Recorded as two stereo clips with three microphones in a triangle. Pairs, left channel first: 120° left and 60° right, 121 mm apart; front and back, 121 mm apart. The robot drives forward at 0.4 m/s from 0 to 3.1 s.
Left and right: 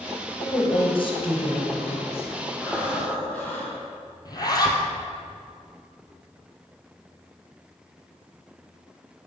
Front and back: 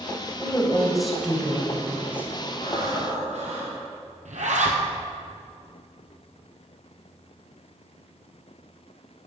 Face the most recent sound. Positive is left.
turn(degrees=175)